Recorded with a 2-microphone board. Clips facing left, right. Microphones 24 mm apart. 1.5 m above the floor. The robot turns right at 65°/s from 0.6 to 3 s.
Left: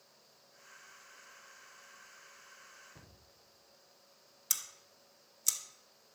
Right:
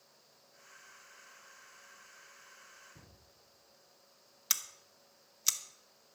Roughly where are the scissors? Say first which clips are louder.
Right 3 dB; right.